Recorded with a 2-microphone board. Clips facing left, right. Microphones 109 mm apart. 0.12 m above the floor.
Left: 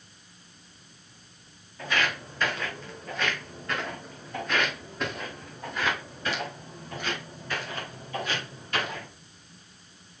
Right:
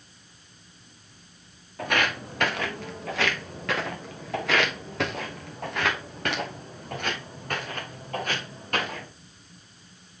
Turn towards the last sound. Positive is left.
turn(degrees=-45)  # may be behind; listen again after turning